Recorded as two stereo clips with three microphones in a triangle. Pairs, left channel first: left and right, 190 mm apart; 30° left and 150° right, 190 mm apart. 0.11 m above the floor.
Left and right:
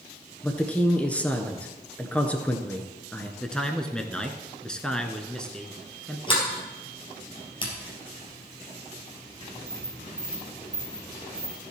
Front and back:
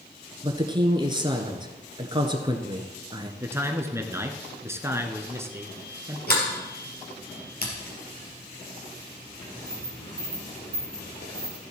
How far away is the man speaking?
About 1.1 m.